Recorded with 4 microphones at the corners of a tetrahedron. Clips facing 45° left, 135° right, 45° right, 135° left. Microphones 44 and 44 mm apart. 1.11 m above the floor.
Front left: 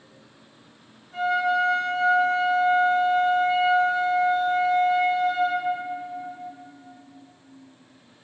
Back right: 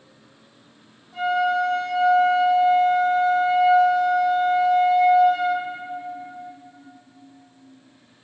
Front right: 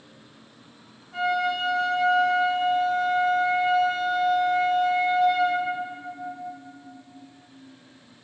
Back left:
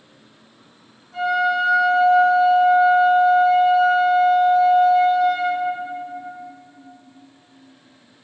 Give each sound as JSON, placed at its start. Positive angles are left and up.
{"t": 1.1, "sound": "a flute", "azimuth_deg": 15, "distance_m": 1.5}